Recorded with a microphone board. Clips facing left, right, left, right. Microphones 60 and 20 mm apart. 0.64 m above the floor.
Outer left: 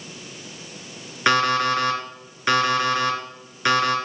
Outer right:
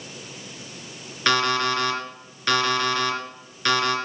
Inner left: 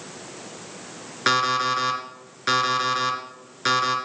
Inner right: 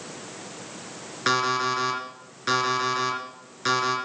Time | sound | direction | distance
1.3 | an alarm clock | 20° left (ahead or behind) | 3.5 m